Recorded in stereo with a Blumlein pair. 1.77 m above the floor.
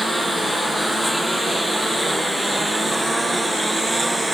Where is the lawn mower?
5° right; by 4.3 s 10° right.